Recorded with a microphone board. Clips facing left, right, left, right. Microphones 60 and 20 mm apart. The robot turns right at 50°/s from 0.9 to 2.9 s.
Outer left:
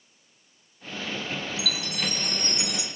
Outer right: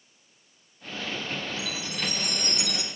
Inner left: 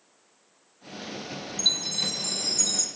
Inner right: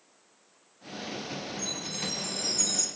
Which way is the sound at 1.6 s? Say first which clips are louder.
Outer left 2 dB, inner left 12 dB; 100° left.